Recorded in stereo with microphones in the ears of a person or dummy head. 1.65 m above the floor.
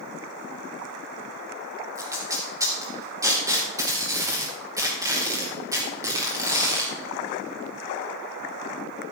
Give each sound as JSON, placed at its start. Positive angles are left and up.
{"t": 1.9, "sound": "tape being pulled", "side_deg": -20, "distance_m": 2.0}